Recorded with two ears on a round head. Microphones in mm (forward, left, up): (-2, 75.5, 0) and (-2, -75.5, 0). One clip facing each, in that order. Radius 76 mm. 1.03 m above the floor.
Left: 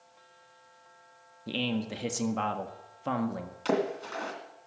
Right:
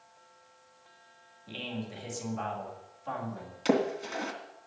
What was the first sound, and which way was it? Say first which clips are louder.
A man speaking: left 7 dB; 70° left (ahead or behind).